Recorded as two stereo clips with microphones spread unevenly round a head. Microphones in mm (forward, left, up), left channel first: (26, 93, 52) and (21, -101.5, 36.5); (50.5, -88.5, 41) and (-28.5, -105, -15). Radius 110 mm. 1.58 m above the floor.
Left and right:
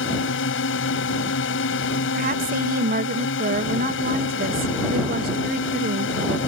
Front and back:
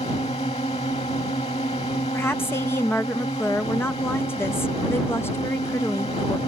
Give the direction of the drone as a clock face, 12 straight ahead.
10 o'clock.